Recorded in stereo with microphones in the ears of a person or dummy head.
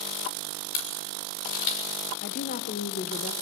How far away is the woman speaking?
About 1.4 m.